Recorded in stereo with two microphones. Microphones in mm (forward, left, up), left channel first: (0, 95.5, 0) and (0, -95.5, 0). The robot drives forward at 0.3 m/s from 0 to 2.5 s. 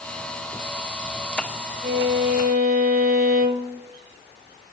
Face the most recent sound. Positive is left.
turn(degrees=-55)  # may be behind; listen again after turning